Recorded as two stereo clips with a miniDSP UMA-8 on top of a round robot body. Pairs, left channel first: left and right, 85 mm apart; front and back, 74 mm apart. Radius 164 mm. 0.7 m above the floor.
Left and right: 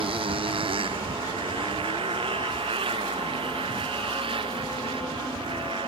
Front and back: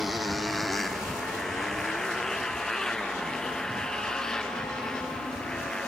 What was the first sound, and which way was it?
A motorcycle, 90° right.